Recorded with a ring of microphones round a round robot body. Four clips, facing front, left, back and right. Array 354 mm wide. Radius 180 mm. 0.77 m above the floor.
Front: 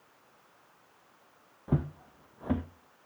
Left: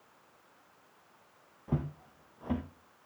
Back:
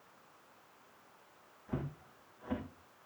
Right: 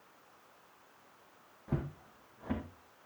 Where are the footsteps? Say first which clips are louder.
Left 3 dB, front 9 dB; 10° left, 1.7 m.